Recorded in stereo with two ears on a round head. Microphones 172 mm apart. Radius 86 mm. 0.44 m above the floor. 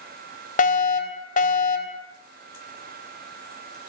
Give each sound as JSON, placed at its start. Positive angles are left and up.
{"t": 0.6, "sound": "a fire alarm", "side_deg": 45, "distance_m": 3.5}